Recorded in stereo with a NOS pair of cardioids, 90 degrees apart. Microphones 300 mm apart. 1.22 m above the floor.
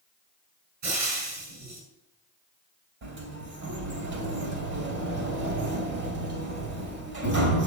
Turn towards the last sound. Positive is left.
turn(degrees=-55)